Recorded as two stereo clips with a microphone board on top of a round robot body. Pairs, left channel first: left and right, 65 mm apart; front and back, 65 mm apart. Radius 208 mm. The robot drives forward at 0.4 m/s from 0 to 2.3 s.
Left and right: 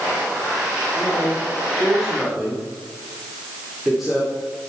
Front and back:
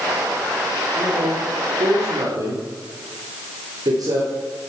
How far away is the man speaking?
About 3 m.